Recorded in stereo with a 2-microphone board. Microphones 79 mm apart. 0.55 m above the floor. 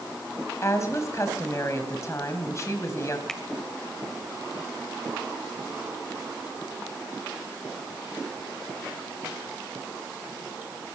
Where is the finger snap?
5° left (ahead or behind), 2.0 m.